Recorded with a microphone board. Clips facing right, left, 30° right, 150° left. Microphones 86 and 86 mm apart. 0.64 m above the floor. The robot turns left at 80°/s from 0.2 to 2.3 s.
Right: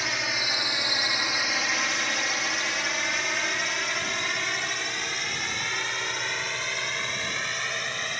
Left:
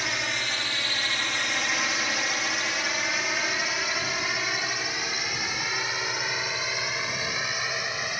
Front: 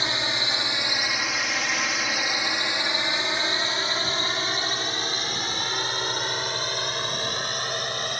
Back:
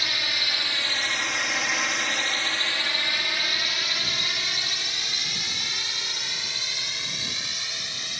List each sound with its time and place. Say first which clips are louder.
0.0 s a drone: even, front 3 dB; 5° right; by 8.2 s 5° left